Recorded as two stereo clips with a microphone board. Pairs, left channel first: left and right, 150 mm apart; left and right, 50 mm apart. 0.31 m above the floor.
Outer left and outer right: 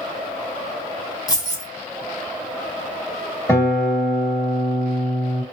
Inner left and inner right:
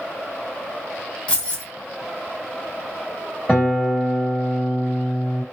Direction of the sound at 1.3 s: 25° left (ahead or behind).